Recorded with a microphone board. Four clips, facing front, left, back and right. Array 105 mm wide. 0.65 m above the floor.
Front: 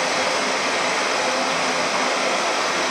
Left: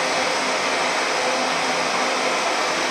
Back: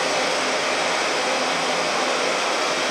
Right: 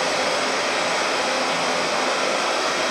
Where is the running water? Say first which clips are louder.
Even, even; 30° left, 0.9 m.